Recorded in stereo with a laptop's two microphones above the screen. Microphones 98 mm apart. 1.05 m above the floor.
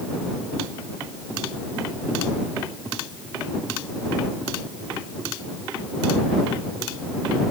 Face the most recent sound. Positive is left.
No sound to turn to.